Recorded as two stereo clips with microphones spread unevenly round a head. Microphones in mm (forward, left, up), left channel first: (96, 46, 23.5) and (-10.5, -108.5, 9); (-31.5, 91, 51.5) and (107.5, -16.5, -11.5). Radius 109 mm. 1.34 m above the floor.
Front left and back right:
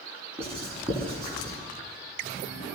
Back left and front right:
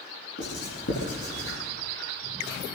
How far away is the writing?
About 9.5 m.